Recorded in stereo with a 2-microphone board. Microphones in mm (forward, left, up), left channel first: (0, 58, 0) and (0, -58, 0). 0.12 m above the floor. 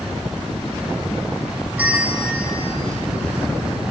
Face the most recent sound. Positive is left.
turn(degrees=-15)  # may be behind; listen again after turning